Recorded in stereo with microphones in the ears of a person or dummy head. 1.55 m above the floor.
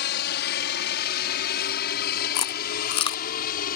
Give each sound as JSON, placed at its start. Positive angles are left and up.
{"t": 0.0, "sound": "a helicopter", "side_deg": 55}
{"t": 2.4, "sound": "chewing", "side_deg": 25}